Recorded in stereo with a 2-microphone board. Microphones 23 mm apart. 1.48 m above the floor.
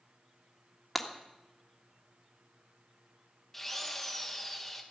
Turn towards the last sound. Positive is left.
turn(degrees=10)  # may be behind; listen again after turning